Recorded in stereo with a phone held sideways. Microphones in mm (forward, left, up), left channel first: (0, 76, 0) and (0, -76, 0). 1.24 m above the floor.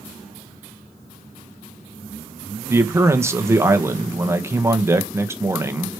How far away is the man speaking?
About 1.2 m.